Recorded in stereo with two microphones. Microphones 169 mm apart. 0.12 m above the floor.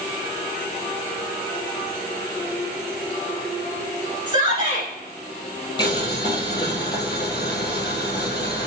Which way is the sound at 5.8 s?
25° left (ahead or behind).